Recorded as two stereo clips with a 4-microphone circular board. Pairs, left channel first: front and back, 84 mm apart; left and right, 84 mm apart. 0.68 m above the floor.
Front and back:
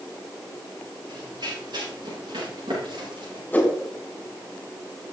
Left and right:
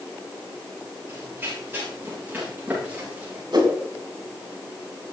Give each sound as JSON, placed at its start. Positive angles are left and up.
{"t": 1.1, "sound": "running footsteps", "azimuth_deg": -150, "distance_m": 8.0}
{"t": 3.5, "sound": "a whoosh", "azimuth_deg": -70, "distance_m": 3.0}